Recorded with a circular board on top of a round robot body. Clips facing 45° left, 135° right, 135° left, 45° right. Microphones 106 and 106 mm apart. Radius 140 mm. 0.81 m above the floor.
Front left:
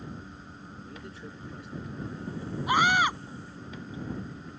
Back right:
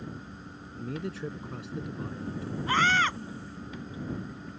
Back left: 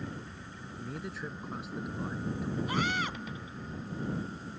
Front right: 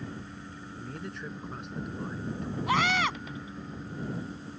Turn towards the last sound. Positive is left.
turn(degrees=-30)